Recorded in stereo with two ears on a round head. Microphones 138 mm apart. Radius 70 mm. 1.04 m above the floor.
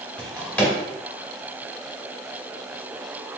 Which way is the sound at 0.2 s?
10° left (ahead or behind).